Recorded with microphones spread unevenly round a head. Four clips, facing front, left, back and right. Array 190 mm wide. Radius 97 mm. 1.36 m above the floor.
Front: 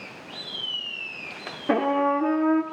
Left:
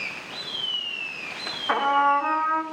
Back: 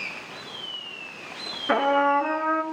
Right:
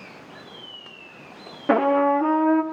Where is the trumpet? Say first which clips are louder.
Right 2 dB, back 1 dB; 65° right, 2.0 m.